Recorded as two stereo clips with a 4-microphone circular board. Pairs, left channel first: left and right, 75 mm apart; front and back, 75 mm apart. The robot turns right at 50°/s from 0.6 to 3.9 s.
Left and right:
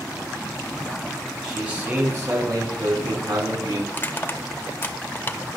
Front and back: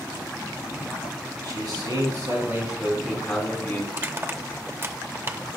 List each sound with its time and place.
1.4 s a man speaking: straight behind, 3.5 m; by 3.8 s 60° right, 3.5 m
3.9 s crushing: 140° left, 0.8 m